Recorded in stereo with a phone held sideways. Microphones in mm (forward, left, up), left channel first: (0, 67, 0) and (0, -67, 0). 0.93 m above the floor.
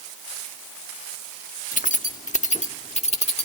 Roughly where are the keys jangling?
Left.